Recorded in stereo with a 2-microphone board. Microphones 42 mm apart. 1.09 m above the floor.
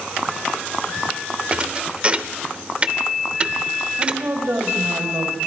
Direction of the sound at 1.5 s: 30° right (ahead or behind).